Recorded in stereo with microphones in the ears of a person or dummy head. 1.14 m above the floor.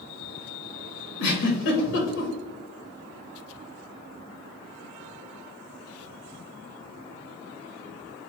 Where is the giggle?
80° left, 1.1 m.